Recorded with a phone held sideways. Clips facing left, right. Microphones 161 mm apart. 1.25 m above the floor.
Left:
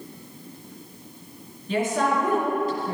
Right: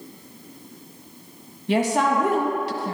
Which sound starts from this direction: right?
A woman speaking, at 1.7 s.